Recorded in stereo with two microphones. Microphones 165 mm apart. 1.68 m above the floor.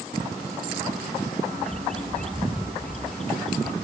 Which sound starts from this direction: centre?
A bird, at 1.6 s.